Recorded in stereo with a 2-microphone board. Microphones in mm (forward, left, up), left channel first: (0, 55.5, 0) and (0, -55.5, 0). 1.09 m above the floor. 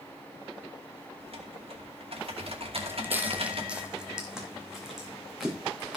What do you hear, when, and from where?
1.2 s typing on a keyboard: 60° right (ahead or behind), 2.5 m
2.8 s footsteps: 20° right (ahead or behind), 1.3 m; by 6.0 s centre (ahead or behind), 5 m